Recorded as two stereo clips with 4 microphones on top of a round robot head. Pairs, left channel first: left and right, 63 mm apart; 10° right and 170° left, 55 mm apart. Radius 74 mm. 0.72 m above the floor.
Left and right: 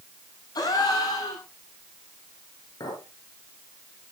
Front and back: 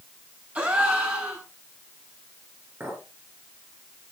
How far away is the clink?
About 7 m.